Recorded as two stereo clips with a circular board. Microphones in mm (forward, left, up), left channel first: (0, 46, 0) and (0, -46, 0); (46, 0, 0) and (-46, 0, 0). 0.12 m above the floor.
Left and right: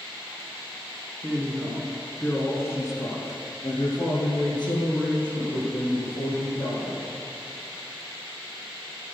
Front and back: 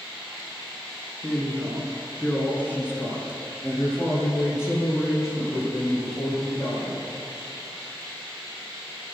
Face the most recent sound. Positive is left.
turn(degrees=60)